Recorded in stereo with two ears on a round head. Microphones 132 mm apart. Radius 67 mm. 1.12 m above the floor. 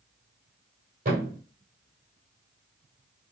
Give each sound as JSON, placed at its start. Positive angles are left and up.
{"t": 1.1, "sound": "a thud", "side_deg": -60, "distance_m": 2.0}